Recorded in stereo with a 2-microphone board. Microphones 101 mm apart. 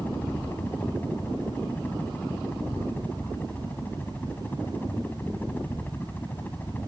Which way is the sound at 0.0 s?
15° left (ahead or behind).